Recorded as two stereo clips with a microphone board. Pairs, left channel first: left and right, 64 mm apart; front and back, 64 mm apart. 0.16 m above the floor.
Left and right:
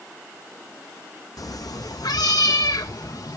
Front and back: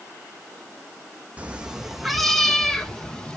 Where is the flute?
No flute in this recording.